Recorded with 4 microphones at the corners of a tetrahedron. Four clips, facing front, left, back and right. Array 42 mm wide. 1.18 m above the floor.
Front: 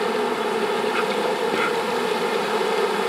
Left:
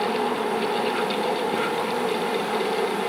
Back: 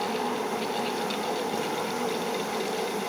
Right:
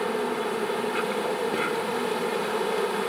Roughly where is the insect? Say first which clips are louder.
Left 3 dB, front 6 dB; ahead.